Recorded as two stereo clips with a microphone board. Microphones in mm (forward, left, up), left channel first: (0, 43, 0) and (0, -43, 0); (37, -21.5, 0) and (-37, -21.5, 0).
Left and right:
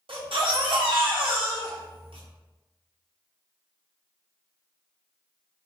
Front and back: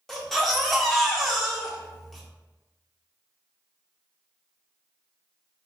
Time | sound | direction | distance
0.1 | a baby crying | 90° right | 0.7 m